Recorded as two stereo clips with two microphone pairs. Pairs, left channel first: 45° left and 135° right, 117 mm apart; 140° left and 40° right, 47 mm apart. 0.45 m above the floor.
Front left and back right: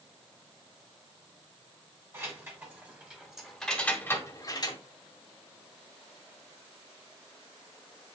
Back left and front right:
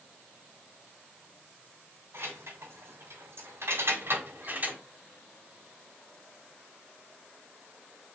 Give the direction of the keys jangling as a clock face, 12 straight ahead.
2 o'clock.